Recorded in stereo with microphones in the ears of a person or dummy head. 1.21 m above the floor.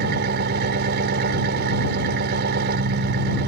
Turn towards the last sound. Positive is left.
turn(degrees=-55)  # may be behind; listen again after turning